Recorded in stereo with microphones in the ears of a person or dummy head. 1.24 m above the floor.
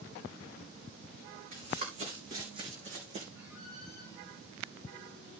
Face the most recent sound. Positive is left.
turn(degrees=-10)  # may be behind; listen again after turning